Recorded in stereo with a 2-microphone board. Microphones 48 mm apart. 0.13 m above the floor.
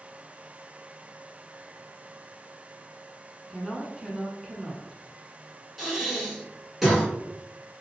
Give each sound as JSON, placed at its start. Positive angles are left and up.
{"t": 3.5, "sound": "a woman speaking", "side_deg": 0, "distance_m": 1.0}
{"t": 5.8, "sound": "breathing", "side_deg": -5, "distance_m": 1.2}